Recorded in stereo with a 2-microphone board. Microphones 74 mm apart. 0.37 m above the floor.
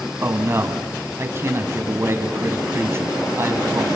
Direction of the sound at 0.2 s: 35° right (ahead or behind).